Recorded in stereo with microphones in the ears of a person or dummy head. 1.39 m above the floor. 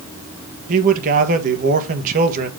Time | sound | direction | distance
0.7 | a man speaking | 40° right (ahead or behind) | 1.4 m